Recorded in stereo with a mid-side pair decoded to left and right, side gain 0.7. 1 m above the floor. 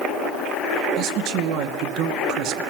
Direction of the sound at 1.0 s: 60° right.